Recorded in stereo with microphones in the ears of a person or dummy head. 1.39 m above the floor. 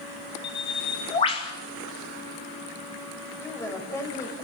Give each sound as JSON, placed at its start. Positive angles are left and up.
{"t": 0.4, "sound": "a bird", "side_deg": 25, "distance_m": 2.5}
{"t": 3.4, "sound": "a woman speaking", "side_deg": 15, "distance_m": 5.5}